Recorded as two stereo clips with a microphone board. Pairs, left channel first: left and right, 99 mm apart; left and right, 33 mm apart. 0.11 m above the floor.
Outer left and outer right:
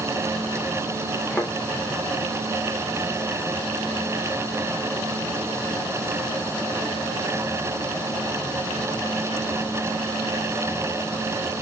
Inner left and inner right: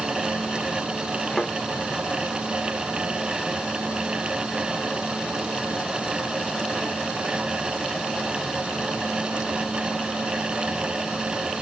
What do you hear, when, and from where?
1.3 s a thud: 10° left (ahead or behind), 4 m